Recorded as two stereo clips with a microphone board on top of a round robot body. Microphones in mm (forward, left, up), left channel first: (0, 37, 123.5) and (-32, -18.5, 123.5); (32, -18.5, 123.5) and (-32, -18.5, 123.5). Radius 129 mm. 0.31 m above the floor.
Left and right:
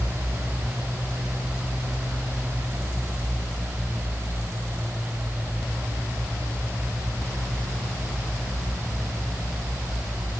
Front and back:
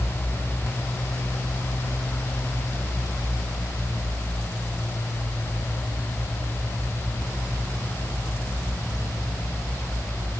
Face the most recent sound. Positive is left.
No sound to turn to.